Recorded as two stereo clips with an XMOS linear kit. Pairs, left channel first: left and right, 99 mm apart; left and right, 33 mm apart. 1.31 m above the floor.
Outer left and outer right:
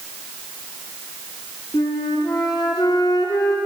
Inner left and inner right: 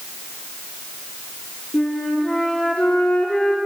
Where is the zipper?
No zipper in this recording.